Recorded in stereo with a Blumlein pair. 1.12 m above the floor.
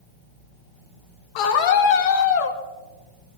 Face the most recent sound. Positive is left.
turn(degrees=40)